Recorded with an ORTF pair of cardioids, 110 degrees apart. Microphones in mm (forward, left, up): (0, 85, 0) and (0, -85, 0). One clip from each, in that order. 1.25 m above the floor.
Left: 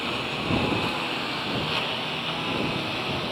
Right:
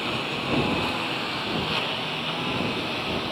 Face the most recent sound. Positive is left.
turn(degrees=0)